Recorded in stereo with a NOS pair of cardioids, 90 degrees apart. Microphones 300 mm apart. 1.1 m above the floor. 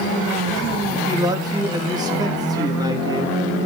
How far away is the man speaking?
About 1.9 m.